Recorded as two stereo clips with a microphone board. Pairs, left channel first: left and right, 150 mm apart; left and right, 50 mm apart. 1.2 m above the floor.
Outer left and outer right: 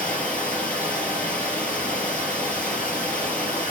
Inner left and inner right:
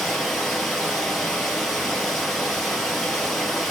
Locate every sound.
0.0 s running water: 10° left (ahead or behind), 2.5 m